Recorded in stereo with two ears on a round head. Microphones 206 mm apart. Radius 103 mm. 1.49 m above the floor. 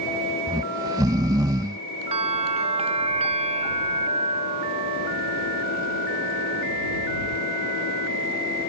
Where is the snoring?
15° right (ahead or behind).